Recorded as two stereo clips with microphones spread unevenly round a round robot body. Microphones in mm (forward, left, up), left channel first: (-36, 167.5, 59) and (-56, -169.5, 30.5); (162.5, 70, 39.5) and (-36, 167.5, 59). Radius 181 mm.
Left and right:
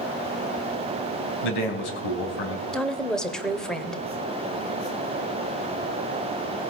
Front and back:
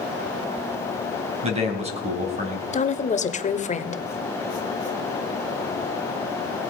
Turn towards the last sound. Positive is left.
turn(degrees=-5)